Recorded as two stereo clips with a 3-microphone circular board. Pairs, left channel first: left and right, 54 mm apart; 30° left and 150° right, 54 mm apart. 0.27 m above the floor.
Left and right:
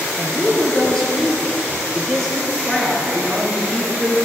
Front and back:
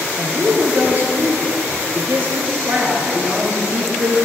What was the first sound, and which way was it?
A woman speaking, 170° left.